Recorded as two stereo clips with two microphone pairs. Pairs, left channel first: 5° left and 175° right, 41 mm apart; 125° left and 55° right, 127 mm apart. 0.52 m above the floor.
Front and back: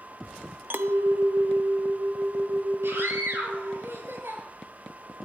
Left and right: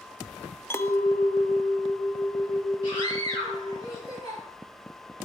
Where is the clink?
170° right, 0.6 m.